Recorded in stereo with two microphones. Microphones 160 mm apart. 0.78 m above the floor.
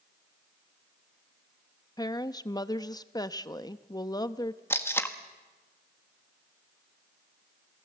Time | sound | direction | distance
2.0 | a woman speaking | 25° left (ahead or behind) | 0.6 m
4.7 | tape being pulled | 15° left (ahead or behind) | 1.4 m